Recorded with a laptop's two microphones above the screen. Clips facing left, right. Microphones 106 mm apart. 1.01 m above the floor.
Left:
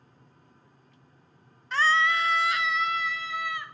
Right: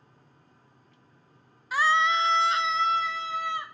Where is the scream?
10° right (ahead or behind), 0.5 m; by 3.6 s 30° right (ahead or behind), 2.5 m.